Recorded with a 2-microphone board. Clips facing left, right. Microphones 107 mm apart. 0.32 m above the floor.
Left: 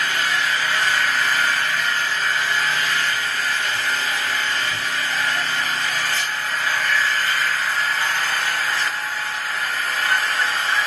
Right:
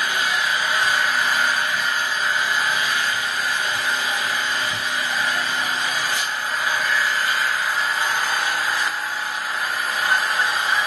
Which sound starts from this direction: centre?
An engine running, at 0.0 s.